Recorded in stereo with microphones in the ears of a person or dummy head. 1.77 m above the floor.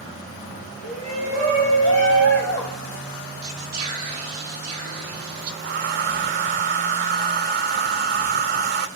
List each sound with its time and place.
0.8 s a shout: 40° right (ahead or behind), 8 m; by 3.0 s 50° right (ahead or behind), 11.5 m
3.4 s whispering: 45° right (ahead or behind), 3.5 m
5.6 s a hair dryer: 55° right (ahead or behind), 1.1 m